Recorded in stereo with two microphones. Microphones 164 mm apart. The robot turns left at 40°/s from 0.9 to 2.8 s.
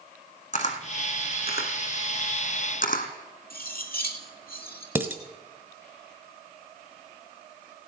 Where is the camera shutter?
45° left (ahead or behind), 1.6 m; by 3.1 s 60° left (ahead or behind), 1.6 m.